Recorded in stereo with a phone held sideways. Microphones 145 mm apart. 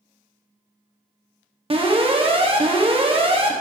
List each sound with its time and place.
1.7 s an alarm: 40° right (ahead or behind), 1.4 m